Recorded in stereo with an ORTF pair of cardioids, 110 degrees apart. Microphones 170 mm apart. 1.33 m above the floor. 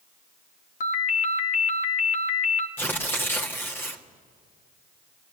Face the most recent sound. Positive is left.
turn(degrees=10)